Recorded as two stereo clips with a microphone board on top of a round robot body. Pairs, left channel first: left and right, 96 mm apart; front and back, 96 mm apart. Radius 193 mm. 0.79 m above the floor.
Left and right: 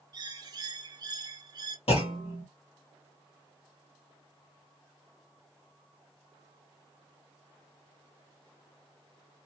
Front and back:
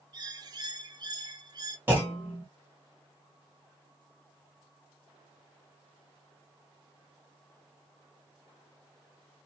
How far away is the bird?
About 0.7 m.